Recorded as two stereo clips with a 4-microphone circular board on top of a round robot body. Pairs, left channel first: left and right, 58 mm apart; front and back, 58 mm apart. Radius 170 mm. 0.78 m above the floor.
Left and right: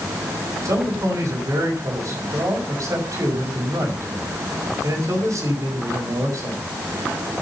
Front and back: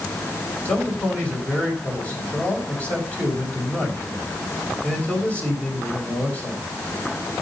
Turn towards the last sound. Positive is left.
turn(degrees=-65)